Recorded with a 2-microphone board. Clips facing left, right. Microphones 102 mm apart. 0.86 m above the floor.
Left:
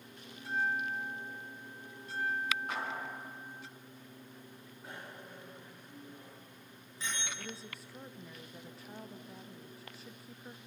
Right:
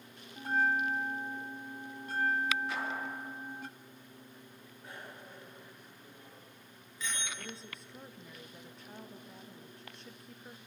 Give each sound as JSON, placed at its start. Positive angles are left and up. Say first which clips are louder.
{"t": 0.4, "sound": "a bell", "louder": "right 4 dB", "side_deg": -50, "distance_m": 0.5}
{"t": 2.7, "sound": "a clap", "louder": "right 1 dB", "side_deg": 50, "distance_m": 9.5}
{"t": 4.8, "sound": "a bicycle bell", "louder": "even", "side_deg": 30, "distance_m": 8.5}
{"t": 7.4, "sound": "a woman speaking", "louder": "left 1 dB", "side_deg": 5, "distance_m": 1.2}